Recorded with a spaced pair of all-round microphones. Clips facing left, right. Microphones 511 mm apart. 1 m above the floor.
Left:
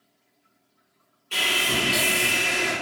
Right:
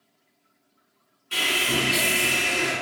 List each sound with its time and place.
1.3 s sawing: 40° right (ahead or behind), 2.0 m